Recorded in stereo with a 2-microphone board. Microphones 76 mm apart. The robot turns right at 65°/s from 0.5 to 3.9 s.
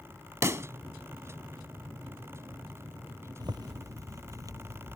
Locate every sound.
0.4 s a pop: 40° right (ahead or behind); by 0.7 s 35° right (ahead or behind)
3.4 s a zipper: 85° right; by 5.0 s 55° right